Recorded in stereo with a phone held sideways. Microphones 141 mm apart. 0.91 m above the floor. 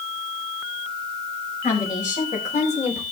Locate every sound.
1.6 s a woman speaking: 60° left (ahead or behind), 4.5 m; by 3.0 s 50° left (ahead or behind), 3.5 m